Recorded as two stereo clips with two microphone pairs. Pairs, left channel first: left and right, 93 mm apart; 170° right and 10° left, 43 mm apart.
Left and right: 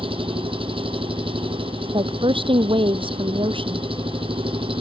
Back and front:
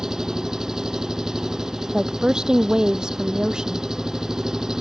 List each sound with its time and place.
0.0 s an engine running: 70° right
1.9 s a woman speaking: 65° right